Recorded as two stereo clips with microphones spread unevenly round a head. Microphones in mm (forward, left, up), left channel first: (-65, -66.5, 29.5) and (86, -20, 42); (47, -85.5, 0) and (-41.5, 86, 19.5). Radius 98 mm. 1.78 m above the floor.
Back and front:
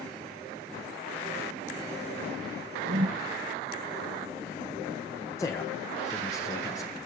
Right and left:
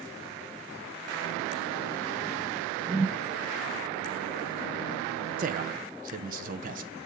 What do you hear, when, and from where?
2.9 s a whoosh: 45° left, 0.7 m
5.4 s a man speaking: 120° left, 0.9 m